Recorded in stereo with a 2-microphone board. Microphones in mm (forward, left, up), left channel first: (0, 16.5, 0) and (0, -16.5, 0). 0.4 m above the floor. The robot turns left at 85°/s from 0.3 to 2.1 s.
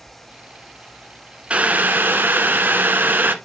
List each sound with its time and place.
1.5 s boiling: 35° right, 0.9 m; by 3.4 s 90° right, 0.9 m